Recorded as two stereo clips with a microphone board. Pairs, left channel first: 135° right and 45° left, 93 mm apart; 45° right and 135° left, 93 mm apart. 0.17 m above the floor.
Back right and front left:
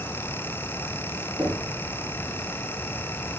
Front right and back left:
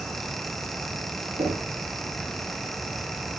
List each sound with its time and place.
1.4 s knocking: 130° left, 4 m